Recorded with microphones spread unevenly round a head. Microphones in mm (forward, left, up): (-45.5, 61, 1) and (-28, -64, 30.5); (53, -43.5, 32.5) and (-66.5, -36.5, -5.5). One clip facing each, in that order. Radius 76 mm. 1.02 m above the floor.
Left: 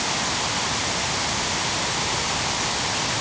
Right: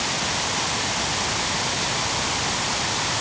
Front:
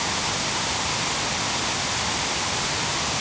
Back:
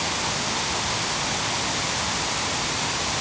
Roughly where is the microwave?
No microwave in this recording.